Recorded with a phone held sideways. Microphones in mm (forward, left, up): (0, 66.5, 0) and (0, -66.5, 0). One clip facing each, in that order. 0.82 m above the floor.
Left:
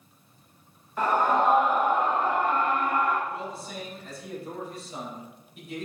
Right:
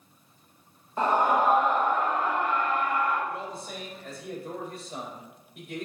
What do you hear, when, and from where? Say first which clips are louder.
1.0 s a scream: even; 30° right (ahead or behind), 0.8 m; by 3.2 s 55° left (ahead or behind), 1.3 m
3.3 s a man speaking: left 1 dB; 70° right (ahead or behind), 4 m